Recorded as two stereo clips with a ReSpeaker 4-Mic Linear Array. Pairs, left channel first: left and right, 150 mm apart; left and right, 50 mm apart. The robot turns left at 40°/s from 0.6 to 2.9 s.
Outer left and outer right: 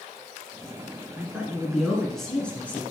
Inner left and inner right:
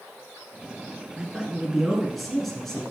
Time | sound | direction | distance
1.2 | a man speaking | 10° right (ahead or behind) | 1.6 m